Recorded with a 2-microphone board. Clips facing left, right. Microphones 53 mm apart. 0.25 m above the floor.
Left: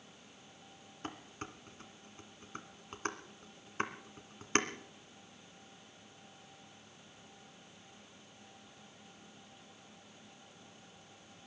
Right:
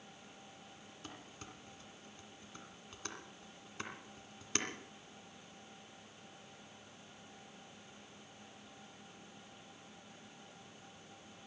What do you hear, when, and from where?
1.0 s dishes clattering: 45° left (ahead or behind), 1.9 m